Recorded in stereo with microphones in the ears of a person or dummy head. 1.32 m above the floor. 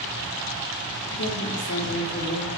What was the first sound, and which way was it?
A woman speaking, 65° left (ahead or behind).